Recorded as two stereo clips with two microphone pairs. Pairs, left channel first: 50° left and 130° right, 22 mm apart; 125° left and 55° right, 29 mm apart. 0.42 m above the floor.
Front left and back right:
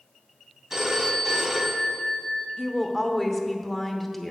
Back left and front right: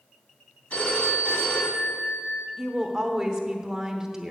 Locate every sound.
0.7 s a phone ringing: 145° left, 2.5 m
2.6 s a woman speaking: 25° right, 0.9 m